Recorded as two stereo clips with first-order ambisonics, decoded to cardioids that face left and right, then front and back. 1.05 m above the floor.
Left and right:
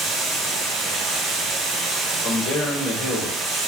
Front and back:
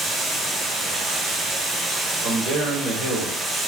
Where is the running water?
110° right, 1.2 m.